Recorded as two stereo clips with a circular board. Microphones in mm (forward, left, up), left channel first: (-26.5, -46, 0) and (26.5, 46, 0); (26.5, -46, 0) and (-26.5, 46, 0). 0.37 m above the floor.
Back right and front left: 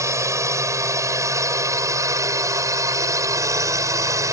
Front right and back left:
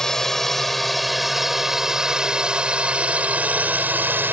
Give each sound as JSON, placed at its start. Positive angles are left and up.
{"t": 0.0, "sound": "a drone", "azimuth_deg": 20}